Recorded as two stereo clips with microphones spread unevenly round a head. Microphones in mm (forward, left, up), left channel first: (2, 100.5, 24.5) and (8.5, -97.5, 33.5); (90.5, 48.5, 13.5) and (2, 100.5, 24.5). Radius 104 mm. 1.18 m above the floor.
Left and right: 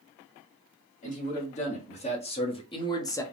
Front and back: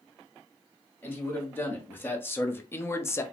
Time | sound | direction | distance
1.0 | a man speaking | 40° left | 1.8 m